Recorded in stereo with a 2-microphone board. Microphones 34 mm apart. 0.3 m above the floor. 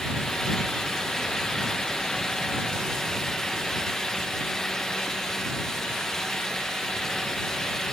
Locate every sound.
Only background noise.